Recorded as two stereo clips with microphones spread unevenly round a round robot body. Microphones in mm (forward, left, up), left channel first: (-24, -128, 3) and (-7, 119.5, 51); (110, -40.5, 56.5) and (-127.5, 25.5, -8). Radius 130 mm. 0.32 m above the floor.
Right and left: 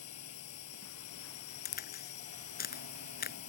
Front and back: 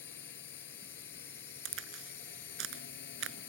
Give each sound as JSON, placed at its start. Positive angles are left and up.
{"t": 0.0, "sound": "a drone", "azimuth_deg": -65}
{"t": 1.6, "sound": "a crack", "azimuth_deg": -150}